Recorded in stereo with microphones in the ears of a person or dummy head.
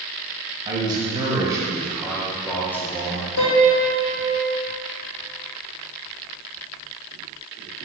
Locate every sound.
0.7 s a man speaking: 30° right (ahead or behind), 2 m; by 3.3 s 25° left (ahead or behind), 1.2 m
3.4 s a piano: 75° left (ahead or behind), 1.2 m